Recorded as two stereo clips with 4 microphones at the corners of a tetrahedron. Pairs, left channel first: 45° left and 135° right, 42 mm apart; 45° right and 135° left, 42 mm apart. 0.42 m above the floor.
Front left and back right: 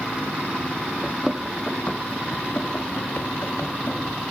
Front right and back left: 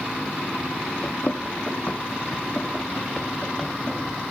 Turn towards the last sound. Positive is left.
turn(degrees=30)